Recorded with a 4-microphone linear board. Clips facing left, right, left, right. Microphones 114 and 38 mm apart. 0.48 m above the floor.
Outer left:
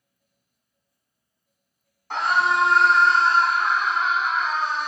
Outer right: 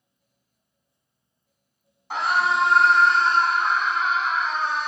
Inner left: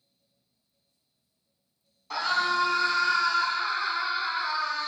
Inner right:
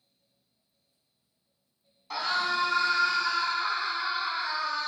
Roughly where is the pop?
No pop in this recording.